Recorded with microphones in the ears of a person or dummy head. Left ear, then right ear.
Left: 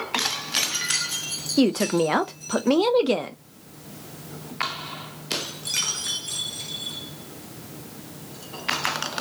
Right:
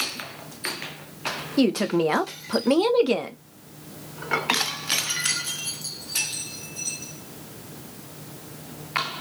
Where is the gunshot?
I don't hear a gunshot.